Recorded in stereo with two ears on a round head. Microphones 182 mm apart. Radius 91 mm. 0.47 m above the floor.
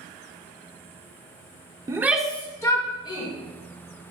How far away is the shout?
About 1.0 m.